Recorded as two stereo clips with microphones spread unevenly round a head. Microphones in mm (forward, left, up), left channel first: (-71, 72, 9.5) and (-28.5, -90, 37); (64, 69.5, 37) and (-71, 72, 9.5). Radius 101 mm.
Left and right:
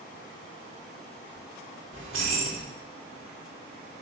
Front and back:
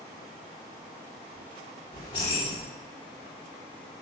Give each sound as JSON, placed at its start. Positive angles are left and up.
{"t": 1.9, "sound": "keys jangling", "azimuth_deg": -65, "distance_m": 3.0}